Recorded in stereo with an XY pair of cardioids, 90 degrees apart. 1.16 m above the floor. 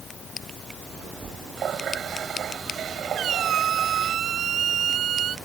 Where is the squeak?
70° right.